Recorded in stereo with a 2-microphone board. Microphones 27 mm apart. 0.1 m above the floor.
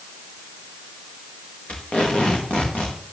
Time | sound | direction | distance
1.7 | tape being pulled | 55° left (ahead or behind) | 5 m